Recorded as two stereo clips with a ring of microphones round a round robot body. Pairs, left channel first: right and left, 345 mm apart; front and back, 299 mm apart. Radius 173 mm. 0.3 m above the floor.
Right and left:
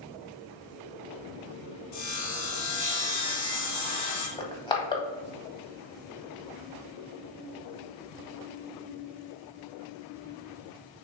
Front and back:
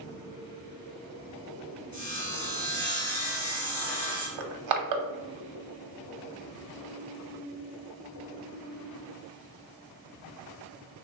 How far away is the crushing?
About 0.8 m.